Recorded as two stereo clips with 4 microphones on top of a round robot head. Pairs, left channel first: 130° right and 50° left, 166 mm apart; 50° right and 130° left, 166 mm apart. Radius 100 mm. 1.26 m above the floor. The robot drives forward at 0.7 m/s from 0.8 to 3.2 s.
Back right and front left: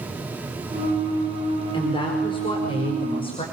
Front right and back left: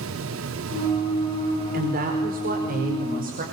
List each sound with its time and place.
1.7 s a woman speaking: 170° left, 4.5 m